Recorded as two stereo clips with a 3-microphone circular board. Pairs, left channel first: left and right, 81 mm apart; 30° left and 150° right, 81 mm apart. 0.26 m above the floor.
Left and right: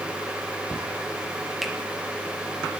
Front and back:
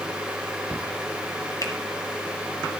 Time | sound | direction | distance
1.6 | a finger snap | 5° right | 1.5 m